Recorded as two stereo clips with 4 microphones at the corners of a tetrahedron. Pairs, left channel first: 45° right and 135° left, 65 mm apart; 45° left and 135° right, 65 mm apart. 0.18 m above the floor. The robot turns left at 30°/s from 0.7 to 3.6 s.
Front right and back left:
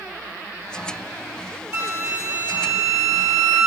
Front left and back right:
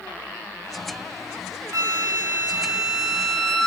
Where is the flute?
170° right, 1.6 m; by 3.7 s 135° left, 1.6 m.